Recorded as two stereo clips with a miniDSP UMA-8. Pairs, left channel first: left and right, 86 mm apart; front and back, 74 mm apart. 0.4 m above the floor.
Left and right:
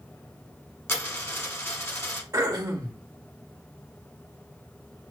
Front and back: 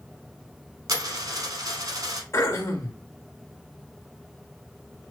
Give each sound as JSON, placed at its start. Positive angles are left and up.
{"t": 0.9, "sound": "a dropped coin", "azimuth_deg": 150, "distance_m": 1.0}
{"t": 2.3, "sound": "throat clearing", "azimuth_deg": -45, "distance_m": 1.0}